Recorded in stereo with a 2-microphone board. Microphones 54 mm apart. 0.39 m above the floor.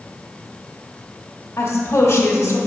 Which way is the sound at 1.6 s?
45° left (ahead or behind).